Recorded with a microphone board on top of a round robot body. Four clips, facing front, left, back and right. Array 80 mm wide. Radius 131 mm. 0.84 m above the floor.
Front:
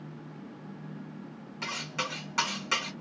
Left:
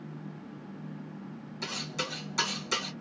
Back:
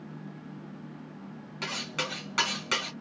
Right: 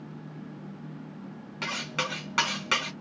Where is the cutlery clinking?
95° right, 3 m.